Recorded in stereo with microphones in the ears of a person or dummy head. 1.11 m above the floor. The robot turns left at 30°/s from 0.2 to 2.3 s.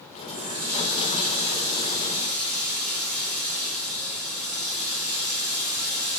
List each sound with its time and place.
0.3 s a running tap: 115° right, 1.3 m; by 6.2 s 175° right, 1.3 m